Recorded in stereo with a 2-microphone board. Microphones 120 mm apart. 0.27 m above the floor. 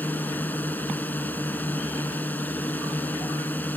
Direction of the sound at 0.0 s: 15° left (ahead or behind).